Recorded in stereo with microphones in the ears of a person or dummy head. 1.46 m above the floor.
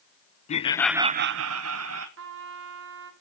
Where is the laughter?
40° left (ahead or behind), 0.9 m; by 2.1 s 85° right, 1.6 m.